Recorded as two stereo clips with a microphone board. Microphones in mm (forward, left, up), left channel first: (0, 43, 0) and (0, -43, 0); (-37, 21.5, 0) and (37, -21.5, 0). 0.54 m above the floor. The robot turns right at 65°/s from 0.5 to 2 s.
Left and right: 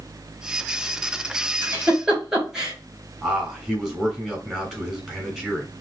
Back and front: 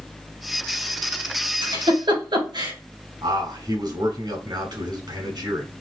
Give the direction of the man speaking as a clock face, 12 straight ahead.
12 o'clock.